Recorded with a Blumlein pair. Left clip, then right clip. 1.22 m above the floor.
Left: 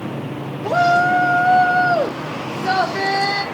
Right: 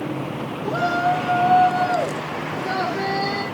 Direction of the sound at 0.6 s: 55° left.